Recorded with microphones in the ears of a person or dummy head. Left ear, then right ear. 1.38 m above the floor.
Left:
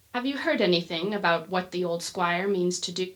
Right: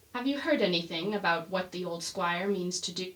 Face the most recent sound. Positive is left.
turn(degrees=40)  # may be behind; listen again after turning